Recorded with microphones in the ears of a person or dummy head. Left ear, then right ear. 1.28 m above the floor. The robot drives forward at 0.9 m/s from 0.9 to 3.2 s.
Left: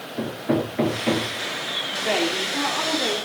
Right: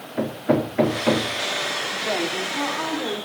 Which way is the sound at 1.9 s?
15° left (ahead or behind).